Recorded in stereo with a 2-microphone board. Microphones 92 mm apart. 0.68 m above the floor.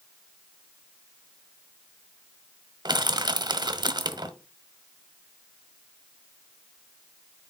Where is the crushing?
50° right (ahead or behind), 0.9 m.